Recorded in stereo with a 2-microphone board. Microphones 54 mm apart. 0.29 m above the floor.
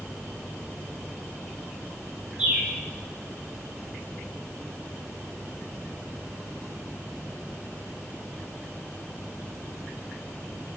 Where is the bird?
30° right (ahead or behind), 1.3 m.